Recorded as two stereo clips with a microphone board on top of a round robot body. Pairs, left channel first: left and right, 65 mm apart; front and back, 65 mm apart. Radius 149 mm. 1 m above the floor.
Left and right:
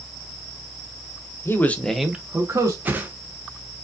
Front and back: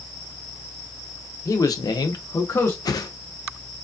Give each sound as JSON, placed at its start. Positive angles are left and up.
{"t": 1.4, "sound": "a man speaking", "azimuth_deg": 35, "distance_m": 0.9}
{"t": 2.9, "sound": "a whoosh", "azimuth_deg": -25, "distance_m": 0.6}